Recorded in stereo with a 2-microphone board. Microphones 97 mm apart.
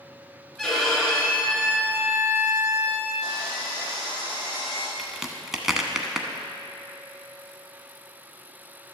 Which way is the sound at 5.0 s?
5° right (ahead or behind).